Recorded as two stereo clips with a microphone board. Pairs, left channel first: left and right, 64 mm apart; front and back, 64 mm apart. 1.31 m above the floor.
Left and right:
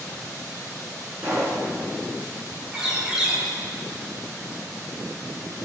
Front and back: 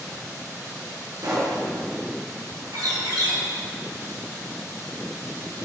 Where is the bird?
170° right, 4 m.